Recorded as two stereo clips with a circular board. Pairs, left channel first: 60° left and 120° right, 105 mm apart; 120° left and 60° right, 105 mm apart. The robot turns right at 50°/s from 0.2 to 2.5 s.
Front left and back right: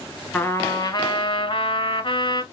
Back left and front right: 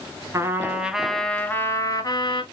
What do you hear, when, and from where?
0.3 s a trumpet: 5° right, 0.7 m; by 2.4 s 100° left, 0.7 m